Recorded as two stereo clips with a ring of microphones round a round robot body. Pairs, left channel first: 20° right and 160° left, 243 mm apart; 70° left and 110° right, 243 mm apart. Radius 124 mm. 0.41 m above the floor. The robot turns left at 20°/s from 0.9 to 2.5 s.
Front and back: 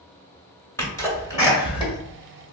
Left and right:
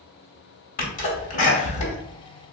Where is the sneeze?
50° left, 1.3 m; by 2.0 s 30° left, 1.3 m.